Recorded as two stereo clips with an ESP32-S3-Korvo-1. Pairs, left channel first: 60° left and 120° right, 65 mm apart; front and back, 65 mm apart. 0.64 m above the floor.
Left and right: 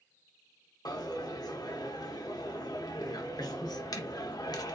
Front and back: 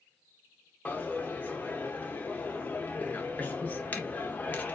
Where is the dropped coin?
60° left, 0.6 m.